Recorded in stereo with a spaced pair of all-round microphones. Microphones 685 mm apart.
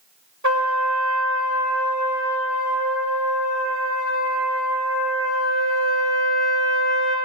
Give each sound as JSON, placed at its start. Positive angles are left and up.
{"t": 0.4, "sound": "a trumpet", "side_deg": -25, "distance_m": 1.3}